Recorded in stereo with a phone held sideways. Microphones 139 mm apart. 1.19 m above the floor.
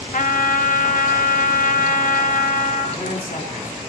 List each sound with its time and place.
0.1 s a trumpet: 70° left (ahead or behind), 1.0 m
2.9 s a man speaking: 85° left, 3 m